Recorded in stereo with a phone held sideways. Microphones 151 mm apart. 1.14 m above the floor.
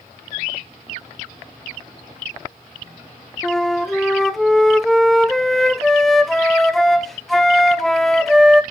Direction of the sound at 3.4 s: Centre (ahead or behind).